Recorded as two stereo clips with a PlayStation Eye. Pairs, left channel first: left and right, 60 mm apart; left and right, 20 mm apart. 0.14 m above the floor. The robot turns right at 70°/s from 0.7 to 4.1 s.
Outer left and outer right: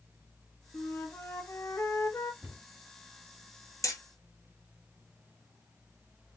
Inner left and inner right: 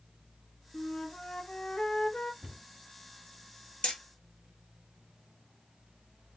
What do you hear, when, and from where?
0.7 s a flute: 5° left, 0.8 m; by 2.3 s 120° left, 0.8 m
2.4 s a cupboard door: 45° right (ahead or behind), 2 m; by 2.6 s 35° right (ahead or behind), 2 m
3.8 s hammering: 65° left (ahead or behind), 1.5 m; by 4.0 s 70° left (ahead or behind), 1.5 m